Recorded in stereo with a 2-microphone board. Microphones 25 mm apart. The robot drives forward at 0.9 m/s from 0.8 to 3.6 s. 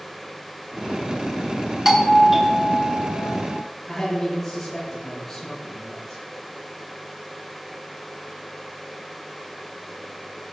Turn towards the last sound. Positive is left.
turn(degrees=10)  # may be behind; listen again after turning